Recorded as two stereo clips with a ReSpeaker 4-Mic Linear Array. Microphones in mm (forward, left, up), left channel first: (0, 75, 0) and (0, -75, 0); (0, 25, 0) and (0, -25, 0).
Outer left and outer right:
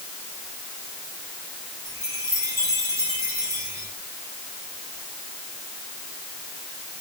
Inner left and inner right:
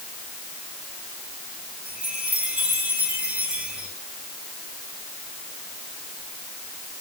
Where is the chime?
20° right (ahead or behind), 9.5 m.